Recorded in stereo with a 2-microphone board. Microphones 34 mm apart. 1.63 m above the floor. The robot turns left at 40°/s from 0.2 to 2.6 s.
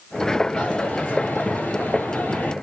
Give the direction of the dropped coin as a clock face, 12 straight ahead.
7 o'clock.